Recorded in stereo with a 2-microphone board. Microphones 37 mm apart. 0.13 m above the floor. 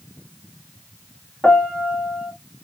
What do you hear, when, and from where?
1.4 s a piano: 25° left (ahead or behind), 1.2 m